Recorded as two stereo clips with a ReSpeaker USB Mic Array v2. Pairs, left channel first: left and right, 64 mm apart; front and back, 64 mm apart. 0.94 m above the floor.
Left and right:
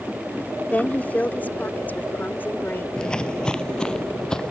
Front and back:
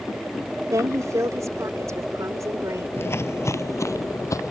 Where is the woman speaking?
155° left; by 2.9 s 150° left.